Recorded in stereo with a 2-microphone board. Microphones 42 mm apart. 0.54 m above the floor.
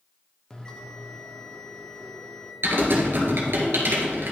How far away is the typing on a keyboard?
About 1.6 m.